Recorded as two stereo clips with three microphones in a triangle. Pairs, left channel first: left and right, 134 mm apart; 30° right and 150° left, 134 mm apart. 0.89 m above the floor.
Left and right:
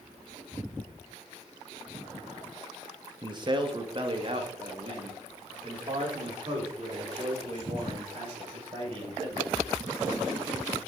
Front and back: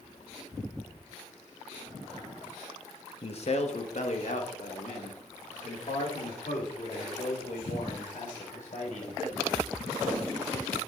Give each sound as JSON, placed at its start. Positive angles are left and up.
{"t": 3.2, "sound": "a man speaking", "azimuth_deg": -45, "distance_m": 0.9}